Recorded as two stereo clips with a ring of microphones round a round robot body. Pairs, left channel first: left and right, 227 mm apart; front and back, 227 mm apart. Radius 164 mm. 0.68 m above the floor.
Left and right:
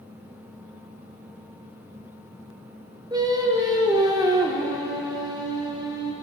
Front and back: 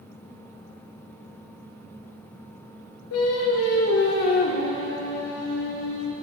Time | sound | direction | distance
3.1 | singing | 15° right | 0.8 m